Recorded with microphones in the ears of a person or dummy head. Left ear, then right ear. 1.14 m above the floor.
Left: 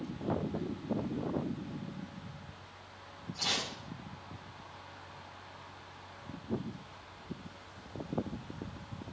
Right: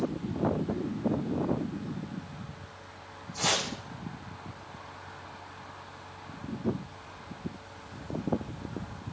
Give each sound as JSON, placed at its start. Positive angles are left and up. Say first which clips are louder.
{"t": 3.4, "sound": "chopping", "louder": "right 5 dB", "side_deg": -35, "distance_m": 3.5}